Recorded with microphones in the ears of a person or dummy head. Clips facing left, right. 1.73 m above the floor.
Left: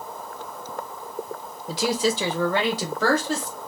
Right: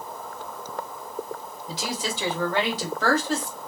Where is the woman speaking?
45° left (ahead or behind), 1.0 m; by 3.5 s 70° left (ahead or behind), 1.8 m.